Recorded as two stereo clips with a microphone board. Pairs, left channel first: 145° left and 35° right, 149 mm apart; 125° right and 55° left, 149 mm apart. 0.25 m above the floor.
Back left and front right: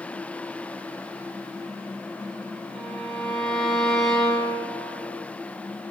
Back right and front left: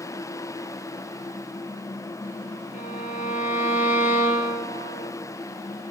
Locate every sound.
2.7 s a violin: 125° right, 0.6 m